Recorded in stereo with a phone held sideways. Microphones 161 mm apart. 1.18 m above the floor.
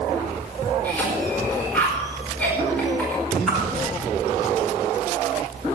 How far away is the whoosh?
About 4.5 m.